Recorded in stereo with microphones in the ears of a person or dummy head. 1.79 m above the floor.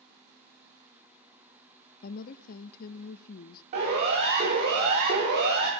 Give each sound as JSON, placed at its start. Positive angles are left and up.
{"t": 2.0, "sound": "a woman speaking", "side_deg": 50, "distance_m": 0.5}
{"t": 3.7, "sound": "a siren", "side_deg": -50, "distance_m": 6.0}